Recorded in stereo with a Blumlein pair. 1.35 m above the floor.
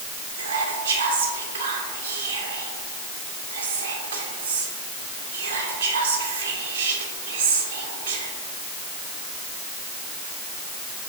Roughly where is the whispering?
Ahead right.